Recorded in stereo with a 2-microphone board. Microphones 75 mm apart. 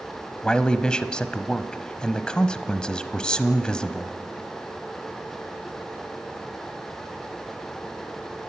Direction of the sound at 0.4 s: 10° left (ahead or behind).